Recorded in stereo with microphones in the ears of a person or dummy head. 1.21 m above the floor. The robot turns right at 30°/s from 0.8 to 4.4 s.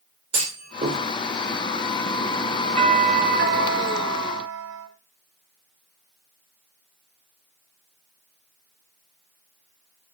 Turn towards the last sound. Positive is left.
turn(degrees=-95)